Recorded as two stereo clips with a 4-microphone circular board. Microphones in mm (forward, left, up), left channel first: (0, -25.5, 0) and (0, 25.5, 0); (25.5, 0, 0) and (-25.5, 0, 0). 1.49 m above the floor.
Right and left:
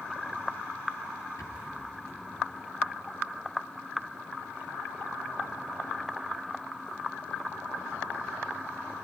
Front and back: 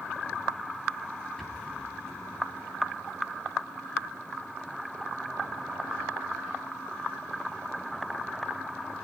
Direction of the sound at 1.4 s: 80° right.